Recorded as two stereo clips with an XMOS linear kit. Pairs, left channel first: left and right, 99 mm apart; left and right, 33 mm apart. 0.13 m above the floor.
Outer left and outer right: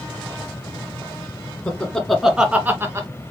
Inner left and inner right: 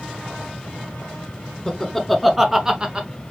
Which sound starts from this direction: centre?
Laughter, at 1.7 s.